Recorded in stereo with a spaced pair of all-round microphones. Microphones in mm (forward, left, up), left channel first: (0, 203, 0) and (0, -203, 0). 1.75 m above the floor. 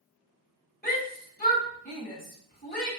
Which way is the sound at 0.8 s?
20° left (ahead or behind).